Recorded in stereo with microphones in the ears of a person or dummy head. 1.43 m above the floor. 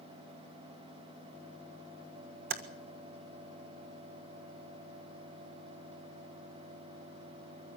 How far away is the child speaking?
I don't hear a child speaking.